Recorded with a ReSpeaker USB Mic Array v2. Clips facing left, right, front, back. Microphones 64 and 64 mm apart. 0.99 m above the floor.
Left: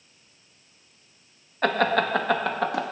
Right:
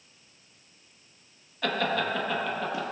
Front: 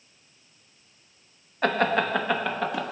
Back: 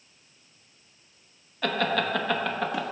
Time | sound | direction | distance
1.6 | laughter | 50° left | 0.9 m